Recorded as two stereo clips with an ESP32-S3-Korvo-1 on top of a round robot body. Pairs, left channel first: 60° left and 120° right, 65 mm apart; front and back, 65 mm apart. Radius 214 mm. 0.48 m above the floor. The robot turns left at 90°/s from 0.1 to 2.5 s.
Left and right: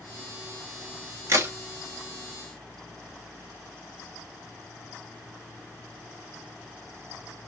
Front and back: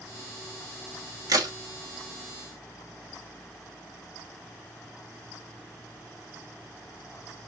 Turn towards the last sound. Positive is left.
turn(degrees=90)